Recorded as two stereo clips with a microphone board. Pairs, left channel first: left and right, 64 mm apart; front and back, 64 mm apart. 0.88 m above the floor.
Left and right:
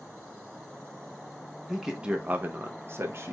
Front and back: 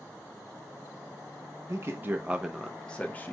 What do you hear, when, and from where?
1.7 s a man speaking: 175° right, 0.6 m; by 3.3 s 50° right, 0.7 m